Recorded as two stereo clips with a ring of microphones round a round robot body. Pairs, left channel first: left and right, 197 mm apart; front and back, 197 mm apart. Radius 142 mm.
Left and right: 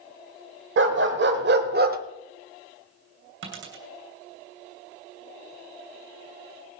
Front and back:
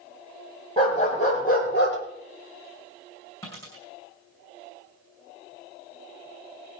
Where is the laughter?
No laughter in this recording.